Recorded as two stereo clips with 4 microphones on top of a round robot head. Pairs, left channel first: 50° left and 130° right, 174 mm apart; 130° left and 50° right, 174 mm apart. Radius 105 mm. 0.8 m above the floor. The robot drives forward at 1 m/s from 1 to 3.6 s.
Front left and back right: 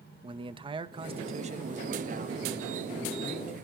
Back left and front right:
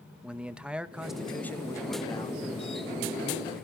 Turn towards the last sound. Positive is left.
turn(degrees=-175)